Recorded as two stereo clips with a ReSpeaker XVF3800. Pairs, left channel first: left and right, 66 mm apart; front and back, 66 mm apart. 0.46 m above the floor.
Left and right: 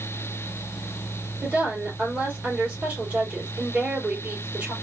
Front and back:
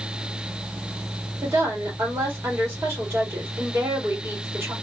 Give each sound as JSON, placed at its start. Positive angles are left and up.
{"t": 1.4, "sound": "a woman speaking", "azimuth_deg": -150, "distance_m": 1.9}